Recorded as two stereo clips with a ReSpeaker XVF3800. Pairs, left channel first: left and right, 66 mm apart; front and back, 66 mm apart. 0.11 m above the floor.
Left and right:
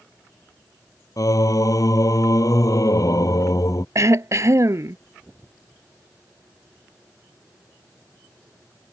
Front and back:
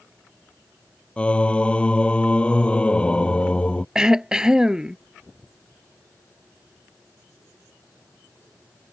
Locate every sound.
1.2 s singing: 70° left
4.0 s throat clearing: 105° right